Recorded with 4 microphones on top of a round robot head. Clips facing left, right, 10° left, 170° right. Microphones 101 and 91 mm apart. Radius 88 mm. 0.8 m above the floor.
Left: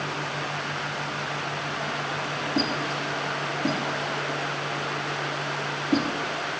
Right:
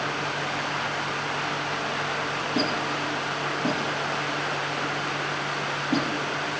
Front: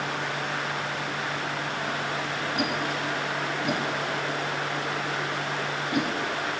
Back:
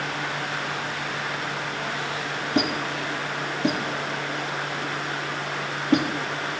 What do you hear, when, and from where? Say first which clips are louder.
2.5 s a squeak: even, back 4 dB; 170° right, 6.5 m